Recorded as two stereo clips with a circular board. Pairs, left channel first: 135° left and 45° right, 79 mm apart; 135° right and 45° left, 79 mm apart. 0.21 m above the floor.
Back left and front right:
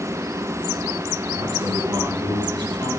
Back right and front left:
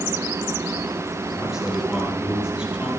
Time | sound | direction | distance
1.3 | a man speaking | 40° right | 5.5 m